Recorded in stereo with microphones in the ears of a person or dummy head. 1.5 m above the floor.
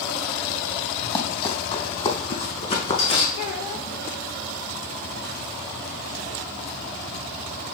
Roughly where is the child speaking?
Left.